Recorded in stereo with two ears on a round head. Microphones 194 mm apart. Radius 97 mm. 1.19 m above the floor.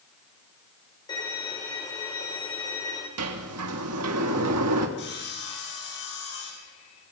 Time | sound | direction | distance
1.1 | a violin | 20° left (ahead or behind) | 5.5 m
3.2 | a sliding door | 80° right | 2 m
5.0 | sawing | 55° left (ahead or behind) | 6.5 m